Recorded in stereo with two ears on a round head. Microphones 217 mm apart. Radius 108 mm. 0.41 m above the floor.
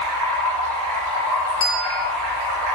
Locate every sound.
0.0 s running water: 70° right (ahead or behind), 3.5 m
1.6 s a bell: 50° left (ahead or behind), 1.7 m